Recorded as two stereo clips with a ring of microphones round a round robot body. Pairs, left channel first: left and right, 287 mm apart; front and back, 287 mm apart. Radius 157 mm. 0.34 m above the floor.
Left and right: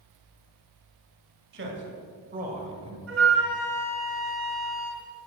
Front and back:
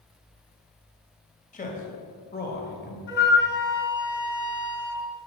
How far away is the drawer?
I don't hear a drawer.